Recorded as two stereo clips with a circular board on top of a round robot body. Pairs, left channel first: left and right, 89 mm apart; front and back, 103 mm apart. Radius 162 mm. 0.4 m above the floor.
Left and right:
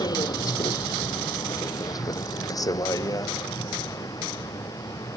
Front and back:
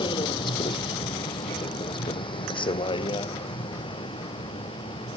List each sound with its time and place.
0.0 s a vehicle: 45° left; by 5.2 s 40° left